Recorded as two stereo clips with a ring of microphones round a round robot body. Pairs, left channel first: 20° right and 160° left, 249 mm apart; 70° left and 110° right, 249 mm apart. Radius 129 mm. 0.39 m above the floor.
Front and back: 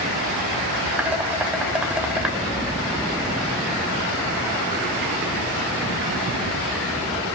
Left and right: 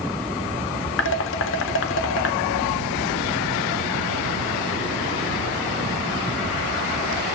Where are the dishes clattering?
75° left, 1.1 m.